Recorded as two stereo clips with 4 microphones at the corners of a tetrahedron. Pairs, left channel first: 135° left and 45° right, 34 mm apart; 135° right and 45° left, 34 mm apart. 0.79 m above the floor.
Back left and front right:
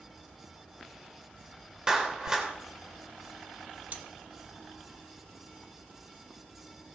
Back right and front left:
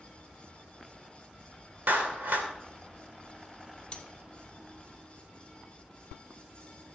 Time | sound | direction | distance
1.9 | a clap | 25° left | 2.5 m
3.9 | cutlery clinking | 75° right | 1.2 m